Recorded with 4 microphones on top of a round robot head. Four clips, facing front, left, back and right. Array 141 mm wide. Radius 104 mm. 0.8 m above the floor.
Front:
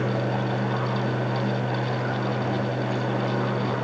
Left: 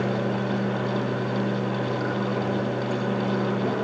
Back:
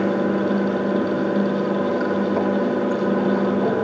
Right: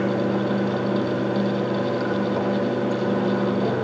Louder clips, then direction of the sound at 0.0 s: Right 4 dB, back 6 dB; 160° right.